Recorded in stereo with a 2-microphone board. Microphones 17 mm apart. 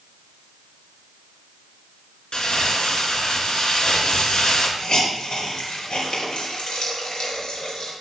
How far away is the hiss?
About 3.5 m.